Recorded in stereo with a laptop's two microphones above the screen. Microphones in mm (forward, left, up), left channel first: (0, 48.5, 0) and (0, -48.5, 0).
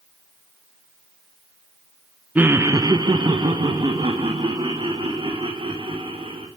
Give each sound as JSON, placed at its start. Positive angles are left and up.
{"t": 2.4, "sound": "laughter", "side_deg": -15, "distance_m": 0.6}